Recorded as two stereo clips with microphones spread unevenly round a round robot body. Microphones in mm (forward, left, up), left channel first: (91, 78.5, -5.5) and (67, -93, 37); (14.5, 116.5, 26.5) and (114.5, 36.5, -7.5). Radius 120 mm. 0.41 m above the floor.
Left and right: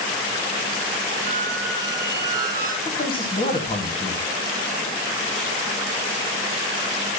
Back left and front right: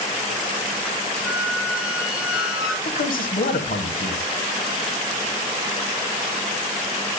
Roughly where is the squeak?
Behind.